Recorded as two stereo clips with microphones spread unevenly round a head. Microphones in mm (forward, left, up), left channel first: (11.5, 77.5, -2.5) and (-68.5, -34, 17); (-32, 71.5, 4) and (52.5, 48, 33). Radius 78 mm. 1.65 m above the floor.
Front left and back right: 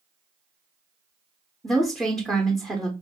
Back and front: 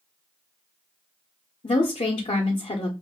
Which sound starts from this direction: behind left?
A woman speaking, at 1.6 s.